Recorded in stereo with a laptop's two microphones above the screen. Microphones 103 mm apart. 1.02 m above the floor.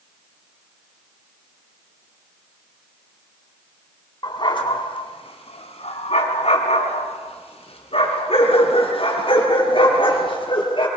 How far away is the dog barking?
About 2.5 m.